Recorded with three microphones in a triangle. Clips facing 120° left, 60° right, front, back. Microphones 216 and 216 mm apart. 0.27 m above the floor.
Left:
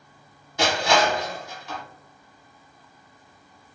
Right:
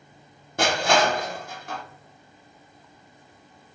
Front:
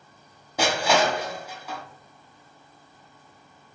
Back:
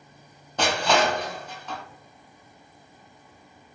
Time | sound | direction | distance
0.6 | crushing | 80° right | 0.8 m